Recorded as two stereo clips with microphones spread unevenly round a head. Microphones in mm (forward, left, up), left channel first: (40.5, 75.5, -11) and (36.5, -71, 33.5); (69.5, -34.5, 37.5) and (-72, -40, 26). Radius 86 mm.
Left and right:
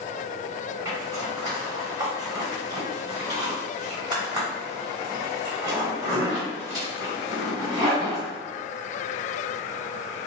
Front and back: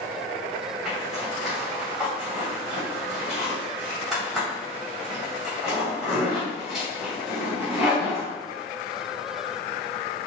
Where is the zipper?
85° right, 1.6 m.